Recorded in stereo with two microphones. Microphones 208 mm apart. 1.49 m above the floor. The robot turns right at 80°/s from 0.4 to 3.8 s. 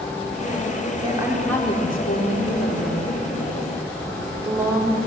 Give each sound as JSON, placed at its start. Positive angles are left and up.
{"t": 1.0, "sound": "a woman speaking", "azimuth_deg": -30, "distance_m": 3.5}